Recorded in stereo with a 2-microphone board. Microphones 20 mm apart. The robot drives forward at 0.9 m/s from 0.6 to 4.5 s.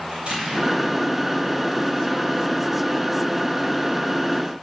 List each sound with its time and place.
0.1 s an explosion: 65° right (ahead or behind), 8.5 m; by 1.8 s 70° right (ahead or behind), 8 m